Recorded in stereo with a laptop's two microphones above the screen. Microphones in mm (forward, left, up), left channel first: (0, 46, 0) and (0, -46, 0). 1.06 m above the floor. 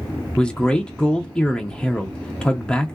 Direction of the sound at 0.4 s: 10° left (ahead or behind).